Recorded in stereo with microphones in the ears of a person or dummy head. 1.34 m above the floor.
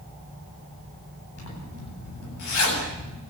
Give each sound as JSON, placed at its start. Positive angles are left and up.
{"t": 1.4, "sound": "a zipper", "side_deg": 90, "distance_m": 8.5}